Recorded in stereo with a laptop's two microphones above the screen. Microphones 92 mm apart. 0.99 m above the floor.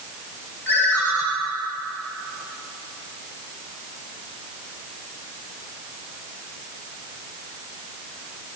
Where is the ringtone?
20° left (ahead or behind), 3.5 m.